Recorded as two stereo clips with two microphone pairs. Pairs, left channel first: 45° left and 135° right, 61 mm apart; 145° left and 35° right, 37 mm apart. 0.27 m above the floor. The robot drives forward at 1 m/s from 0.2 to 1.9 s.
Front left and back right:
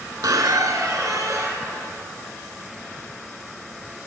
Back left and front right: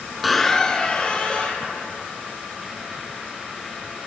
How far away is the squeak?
About 0.5 m.